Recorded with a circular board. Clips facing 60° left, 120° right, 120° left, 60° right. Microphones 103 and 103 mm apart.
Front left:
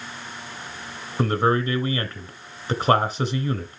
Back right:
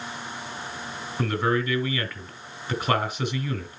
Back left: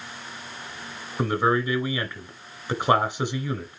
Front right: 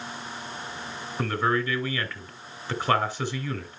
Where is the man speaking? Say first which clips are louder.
Front left 4 dB, back left 3 dB; 65° left, 1.2 m.